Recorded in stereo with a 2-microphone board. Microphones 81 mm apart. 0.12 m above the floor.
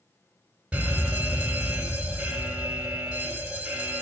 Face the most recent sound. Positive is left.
turn(degrees=-10)  # may be behind; listen again after turning